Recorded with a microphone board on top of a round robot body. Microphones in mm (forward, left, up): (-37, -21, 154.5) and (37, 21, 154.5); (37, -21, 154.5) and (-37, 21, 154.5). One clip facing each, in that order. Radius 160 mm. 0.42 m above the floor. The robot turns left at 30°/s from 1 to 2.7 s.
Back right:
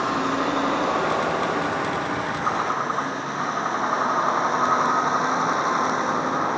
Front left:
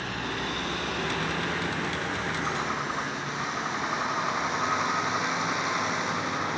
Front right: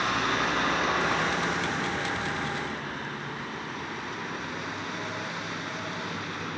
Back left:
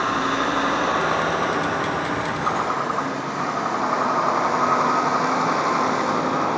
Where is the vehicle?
150° right; by 6.6 s 160° left.